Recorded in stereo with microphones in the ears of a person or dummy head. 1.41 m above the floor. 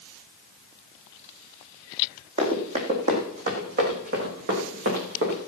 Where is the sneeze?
I don't hear a sneeze.